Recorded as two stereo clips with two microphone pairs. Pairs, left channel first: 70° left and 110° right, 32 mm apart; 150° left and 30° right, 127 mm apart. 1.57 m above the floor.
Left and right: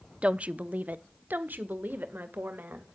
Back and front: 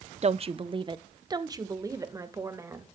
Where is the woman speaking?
55° right, 0.6 m; by 2.9 s 95° right, 2 m.